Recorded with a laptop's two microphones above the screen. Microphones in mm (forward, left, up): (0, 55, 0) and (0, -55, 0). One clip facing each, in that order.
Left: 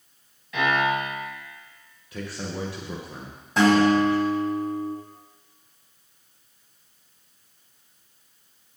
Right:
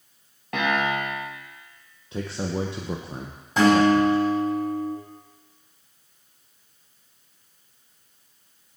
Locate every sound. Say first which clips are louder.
0.5 s a piano: left 1 dB; 65° right (ahead or behind), 2 m
2.1 s a man speaking: right 5 dB; 25° right (ahead or behind), 0.7 m
3.6 s a guitar: right 1 dB; centre (ahead or behind), 3.5 m